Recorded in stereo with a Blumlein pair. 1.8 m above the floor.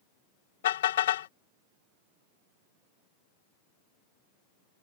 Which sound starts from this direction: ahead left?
A car horn, at 0.6 s.